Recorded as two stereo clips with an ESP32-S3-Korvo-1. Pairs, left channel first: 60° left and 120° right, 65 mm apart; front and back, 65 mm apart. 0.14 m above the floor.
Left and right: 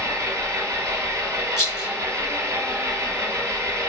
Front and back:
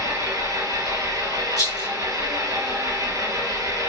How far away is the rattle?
About 3.5 m.